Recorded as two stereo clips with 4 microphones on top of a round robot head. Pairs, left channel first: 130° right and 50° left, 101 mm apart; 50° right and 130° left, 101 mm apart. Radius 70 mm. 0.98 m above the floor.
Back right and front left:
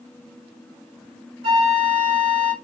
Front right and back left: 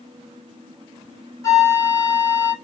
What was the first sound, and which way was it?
A flute, 10° left.